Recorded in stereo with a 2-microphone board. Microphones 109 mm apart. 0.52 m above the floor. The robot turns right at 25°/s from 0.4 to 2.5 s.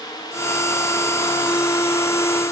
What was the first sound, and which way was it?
Only background noise.